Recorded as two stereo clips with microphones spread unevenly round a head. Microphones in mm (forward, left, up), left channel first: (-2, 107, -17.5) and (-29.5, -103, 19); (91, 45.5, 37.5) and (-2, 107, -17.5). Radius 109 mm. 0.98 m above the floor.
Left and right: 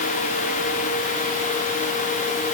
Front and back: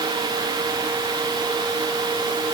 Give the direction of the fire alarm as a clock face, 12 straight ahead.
No fire alarm in this recording.